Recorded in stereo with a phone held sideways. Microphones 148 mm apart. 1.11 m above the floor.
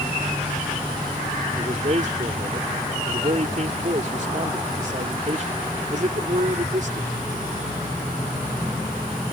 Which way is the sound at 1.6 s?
50° right (ahead or behind).